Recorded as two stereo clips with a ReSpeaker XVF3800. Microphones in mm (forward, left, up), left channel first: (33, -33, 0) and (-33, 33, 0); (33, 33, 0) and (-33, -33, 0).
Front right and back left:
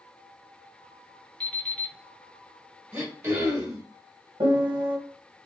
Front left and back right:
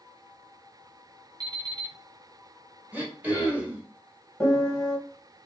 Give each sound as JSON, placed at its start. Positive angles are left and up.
{"t": 1.4, "sound": "an alarm clock", "azimuth_deg": -125, "distance_m": 0.8}
{"t": 2.9, "sound": "throat clearing", "azimuth_deg": 170, "distance_m": 1.2}
{"t": 4.4, "sound": "a piano", "azimuth_deg": 125, "distance_m": 1.1}